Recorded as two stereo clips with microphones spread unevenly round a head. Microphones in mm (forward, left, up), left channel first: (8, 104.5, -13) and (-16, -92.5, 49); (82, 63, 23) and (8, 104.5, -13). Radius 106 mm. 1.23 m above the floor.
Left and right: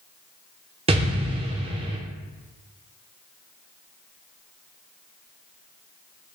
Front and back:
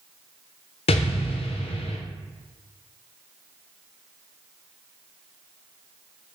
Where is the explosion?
30° right, 0.5 m.